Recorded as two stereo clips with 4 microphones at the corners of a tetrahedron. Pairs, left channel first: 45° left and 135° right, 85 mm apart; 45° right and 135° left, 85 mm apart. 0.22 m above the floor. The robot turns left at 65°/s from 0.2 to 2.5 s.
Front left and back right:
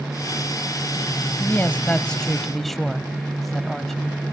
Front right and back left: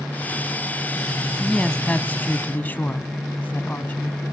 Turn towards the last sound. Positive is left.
turn(degrees=-40)